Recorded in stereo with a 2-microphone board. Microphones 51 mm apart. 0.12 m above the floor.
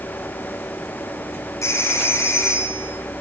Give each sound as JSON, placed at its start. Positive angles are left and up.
{"t": 1.6, "sound": "a phone ringing", "side_deg": 70, "distance_m": 7.5}